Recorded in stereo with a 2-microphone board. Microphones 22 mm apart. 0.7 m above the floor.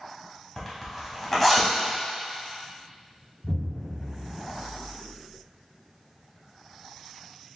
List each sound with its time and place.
0.6 s a zipper: 10° left (ahead or behind), 1.4 m
3.4 s an explosion: 40° right (ahead or behind), 0.6 m